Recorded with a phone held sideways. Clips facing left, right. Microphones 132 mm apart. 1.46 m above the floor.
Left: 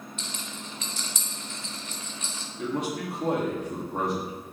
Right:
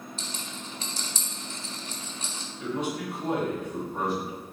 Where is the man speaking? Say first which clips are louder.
Left 1 dB; 80° left, 3 m.